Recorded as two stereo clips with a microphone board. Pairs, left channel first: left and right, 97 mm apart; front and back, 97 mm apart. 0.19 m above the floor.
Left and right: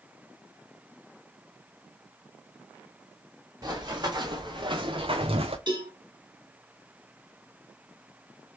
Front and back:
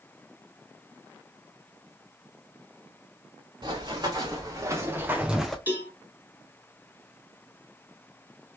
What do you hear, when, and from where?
3.6 s running footsteps: 135° right, 2 m; by 5.6 s 85° right, 0.7 m
5.7 s a cowbell: 115° right, 3 m